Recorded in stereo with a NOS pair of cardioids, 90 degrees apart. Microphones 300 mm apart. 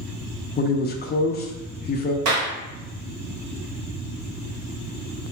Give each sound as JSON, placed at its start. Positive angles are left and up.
{"t": 0.6, "sound": "a man speaking", "azimuth_deg": 35, "distance_m": 0.7}
{"t": 2.2, "sound": "a clap", "azimuth_deg": -70, "distance_m": 1.2}